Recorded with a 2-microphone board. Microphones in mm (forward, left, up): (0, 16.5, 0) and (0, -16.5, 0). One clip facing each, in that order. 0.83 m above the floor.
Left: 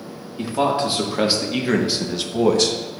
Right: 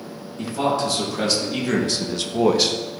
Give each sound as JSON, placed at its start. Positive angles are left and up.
{"t": 0.4, "sound": "a man speaking", "side_deg": 30, "distance_m": 1.6}